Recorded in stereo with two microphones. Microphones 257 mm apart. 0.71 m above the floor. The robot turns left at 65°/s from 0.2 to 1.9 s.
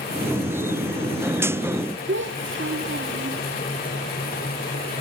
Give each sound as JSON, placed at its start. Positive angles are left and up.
{"t": 2.1, "sound": "a child speaking", "side_deg": -50, "distance_m": 1.1}